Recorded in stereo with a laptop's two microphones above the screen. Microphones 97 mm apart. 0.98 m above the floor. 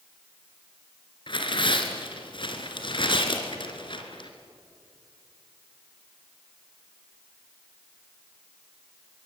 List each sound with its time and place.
1.3 s tearing paper: 55° left (ahead or behind), 2.5 m